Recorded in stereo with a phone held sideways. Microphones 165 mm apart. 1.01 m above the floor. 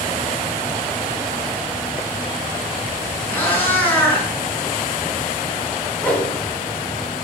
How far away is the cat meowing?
About 5 m.